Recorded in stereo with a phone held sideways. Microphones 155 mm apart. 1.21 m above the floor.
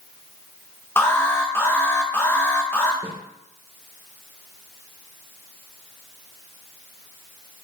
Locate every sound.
1.0 s an alarm: 15° left (ahead or behind), 2.0 m
3.0 s a snare drum: 35° left (ahead or behind), 2 m